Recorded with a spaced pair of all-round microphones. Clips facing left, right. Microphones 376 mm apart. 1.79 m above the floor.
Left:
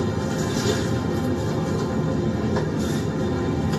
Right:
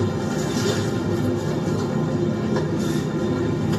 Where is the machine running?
25° right (ahead or behind), 1.5 m.